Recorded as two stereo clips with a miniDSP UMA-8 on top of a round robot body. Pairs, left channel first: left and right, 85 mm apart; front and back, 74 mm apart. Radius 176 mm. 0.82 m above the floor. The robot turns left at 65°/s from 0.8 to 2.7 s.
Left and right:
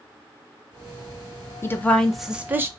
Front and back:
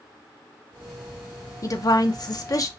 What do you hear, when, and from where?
1.6 s a woman speaking: 35° left, 0.7 m; by 2.7 s 35° right, 0.7 m